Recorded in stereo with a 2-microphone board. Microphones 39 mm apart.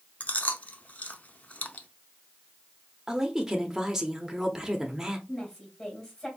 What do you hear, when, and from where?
0.2 s chewing: 40° left (ahead or behind), 0.5 m
3.1 s a woman speaking: 10° right (ahead or behind), 0.8 m
5.3 s a woman speaking: 25° left (ahead or behind), 2 m